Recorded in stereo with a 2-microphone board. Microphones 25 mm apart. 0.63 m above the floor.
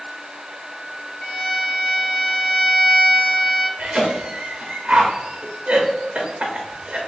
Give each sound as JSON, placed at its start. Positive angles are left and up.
{"t": 1.2, "sound": "a violin", "side_deg": 35, "distance_m": 0.8}
{"t": 3.8, "sound": "a cough", "side_deg": -45, "distance_m": 0.7}